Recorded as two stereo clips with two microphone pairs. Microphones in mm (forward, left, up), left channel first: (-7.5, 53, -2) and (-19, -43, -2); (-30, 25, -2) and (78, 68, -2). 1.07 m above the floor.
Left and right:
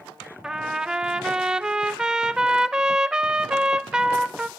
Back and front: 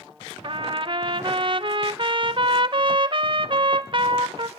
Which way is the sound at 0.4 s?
15° right.